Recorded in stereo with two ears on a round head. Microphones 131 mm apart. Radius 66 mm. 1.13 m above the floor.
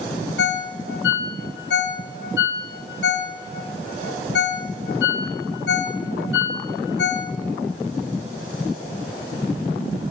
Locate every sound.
0.4 s a ringtone: 80° left, 1.6 m